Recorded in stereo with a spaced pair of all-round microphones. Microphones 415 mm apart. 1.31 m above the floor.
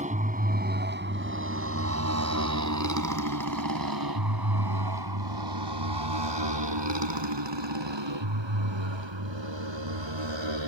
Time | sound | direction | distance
0.0 | a motorcycle | 15° right (ahead or behind) | ?